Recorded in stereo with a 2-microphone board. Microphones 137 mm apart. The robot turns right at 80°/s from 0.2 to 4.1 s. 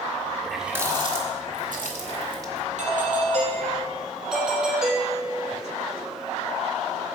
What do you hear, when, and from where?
0.4 s a running tap: 10° left (ahead or behind), 1.7 m; by 2.6 s 15° right (ahead or behind), 1.7 m
2.8 s a doorbell: 105° right, 4.5 m; by 5.6 s straight ahead, 4.5 m